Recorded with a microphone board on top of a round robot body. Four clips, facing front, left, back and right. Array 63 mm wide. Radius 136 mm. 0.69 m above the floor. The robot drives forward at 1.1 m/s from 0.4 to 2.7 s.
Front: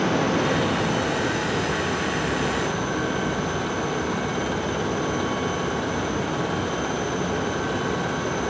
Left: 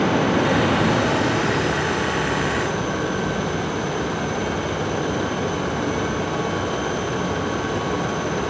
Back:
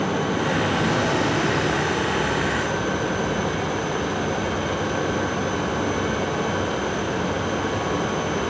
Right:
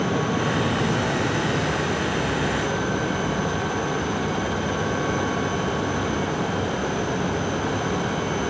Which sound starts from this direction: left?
Running water, at 0.0 s.